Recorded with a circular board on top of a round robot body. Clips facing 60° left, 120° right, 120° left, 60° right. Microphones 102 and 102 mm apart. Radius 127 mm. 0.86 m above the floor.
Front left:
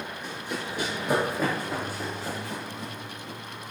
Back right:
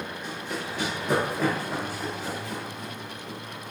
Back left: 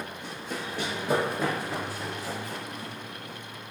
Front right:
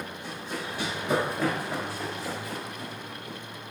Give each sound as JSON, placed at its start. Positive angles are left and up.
{"t": 0.2, "sound": "running footsteps", "azimuth_deg": 140, "distance_m": 1.0}